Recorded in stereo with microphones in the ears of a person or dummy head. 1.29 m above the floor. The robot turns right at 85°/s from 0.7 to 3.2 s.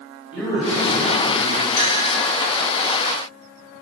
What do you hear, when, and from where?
0.3 s a man speaking: straight ahead, 3 m; by 1.7 s 80° left, 3 m
1.8 s a clink: 50° left (ahead or behind), 3.5 m; by 2.0 s 70° left (ahead or behind), 3.5 m